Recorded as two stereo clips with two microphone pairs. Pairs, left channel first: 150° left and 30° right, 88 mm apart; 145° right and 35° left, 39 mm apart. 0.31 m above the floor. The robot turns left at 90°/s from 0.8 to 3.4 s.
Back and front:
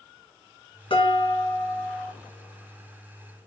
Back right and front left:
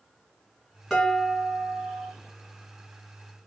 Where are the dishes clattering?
145° left, 2.0 m; by 2.1 s 35° left, 2.0 m.